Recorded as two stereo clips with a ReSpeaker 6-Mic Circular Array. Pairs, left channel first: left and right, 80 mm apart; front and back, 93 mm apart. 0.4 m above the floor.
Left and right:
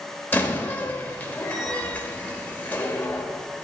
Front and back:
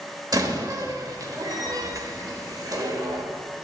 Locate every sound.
0.3 s a door slam: 150° left, 1.1 m